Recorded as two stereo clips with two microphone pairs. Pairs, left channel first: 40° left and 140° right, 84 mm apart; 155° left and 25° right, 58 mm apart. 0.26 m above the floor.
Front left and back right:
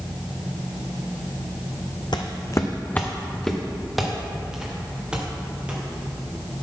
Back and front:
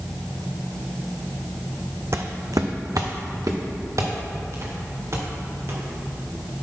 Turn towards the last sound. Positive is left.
turn(degrees=-65)